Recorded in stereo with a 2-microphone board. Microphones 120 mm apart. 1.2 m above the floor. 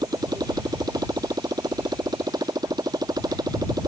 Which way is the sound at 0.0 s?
35° right (ahead or behind).